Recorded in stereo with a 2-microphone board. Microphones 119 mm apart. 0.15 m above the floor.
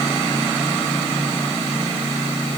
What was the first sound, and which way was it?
Only background noise.